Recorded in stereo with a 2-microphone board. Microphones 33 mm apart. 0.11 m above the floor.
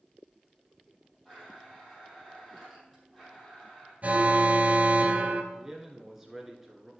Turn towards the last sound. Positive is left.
turn(degrees=-10)  # may be behind; listen again after turning